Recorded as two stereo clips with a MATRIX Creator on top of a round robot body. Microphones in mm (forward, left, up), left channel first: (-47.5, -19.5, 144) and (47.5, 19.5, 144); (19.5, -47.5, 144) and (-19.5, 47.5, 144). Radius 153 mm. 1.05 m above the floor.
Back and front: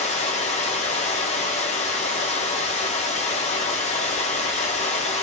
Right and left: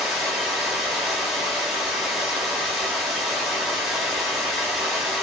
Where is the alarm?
I don't hear an alarm.